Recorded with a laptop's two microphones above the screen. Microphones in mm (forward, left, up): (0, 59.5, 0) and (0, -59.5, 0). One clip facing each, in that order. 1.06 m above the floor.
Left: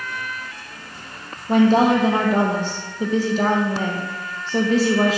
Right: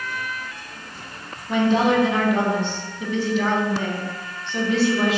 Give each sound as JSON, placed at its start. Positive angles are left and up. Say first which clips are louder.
{"t": 1.5, "sound": "a woman speaking", "louder": "left 4 dB", "side_deg": 40, "distance_m": 1.0}